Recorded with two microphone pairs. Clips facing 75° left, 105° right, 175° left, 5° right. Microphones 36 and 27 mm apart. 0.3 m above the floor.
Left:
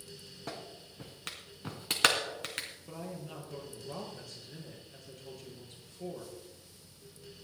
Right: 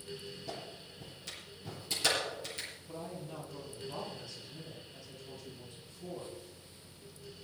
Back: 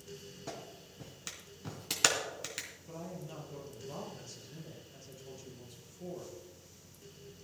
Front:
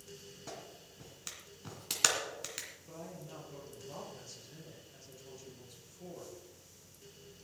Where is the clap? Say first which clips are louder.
Left 4 dB, back 3 dB; 90° left, 2.5 m.